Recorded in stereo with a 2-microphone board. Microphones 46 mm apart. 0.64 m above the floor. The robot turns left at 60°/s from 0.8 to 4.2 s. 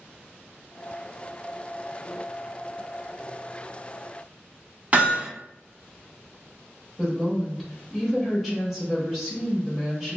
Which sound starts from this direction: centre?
A woman speaking, at 7.0 s.